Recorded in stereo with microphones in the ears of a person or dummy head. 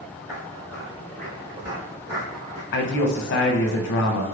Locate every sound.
0.3 s footsteps: 10° left (ahead or behind), 1.5 m; by 2.6 s 30° right (ahead or behind), 1.3 m
2.7 s a man speaking: 55° left (ahead or behind), 0.8 m